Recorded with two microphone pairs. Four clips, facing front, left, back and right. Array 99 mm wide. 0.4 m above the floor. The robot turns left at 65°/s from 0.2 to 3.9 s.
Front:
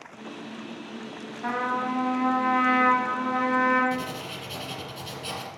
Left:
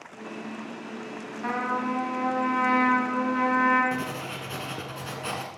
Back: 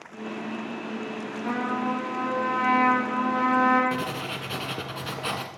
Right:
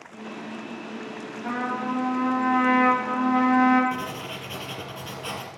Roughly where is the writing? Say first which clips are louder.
Even, back 2 dB; behind.